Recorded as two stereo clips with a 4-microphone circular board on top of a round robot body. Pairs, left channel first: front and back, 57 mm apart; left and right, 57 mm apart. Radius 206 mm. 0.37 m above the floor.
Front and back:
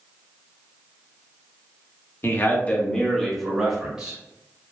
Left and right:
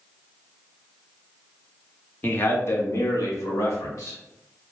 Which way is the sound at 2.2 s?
35° left.